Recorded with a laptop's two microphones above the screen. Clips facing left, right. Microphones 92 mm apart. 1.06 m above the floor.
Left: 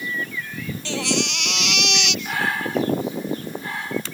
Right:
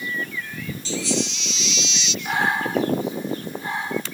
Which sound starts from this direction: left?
A baby crying, at 0.8 s.